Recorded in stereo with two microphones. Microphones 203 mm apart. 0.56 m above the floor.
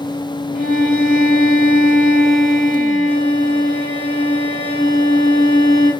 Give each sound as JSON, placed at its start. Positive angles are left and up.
{"t": 0.6, "sound": "a violin", "side_deg": -50, "distance_m": 1.1}